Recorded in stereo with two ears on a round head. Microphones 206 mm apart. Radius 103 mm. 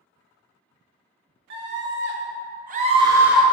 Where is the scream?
50° right (ahead or behind), 1.6 m; by 3.4 s centre (ahead or behind), 0.8 m.